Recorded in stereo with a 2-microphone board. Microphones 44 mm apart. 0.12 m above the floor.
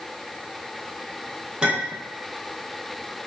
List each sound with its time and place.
1.6 s a clink: 20° right (ahead or behind), 0.7 m